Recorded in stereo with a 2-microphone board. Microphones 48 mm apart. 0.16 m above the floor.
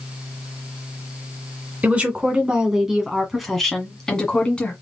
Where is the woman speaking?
25° right (ahead or behind), 1.9 m; by 4.7 s 25° left (ahead or behind), 1.9 m.